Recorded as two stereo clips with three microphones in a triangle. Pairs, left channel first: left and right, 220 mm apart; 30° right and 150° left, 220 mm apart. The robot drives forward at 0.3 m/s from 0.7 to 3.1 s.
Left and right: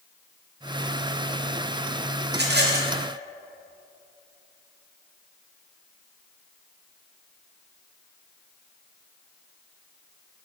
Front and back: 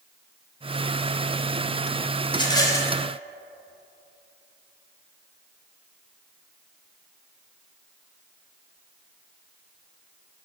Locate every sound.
2.3 s a rattle: 90° right, 0.8 m; by 2.9 s 110° right, 0.8 m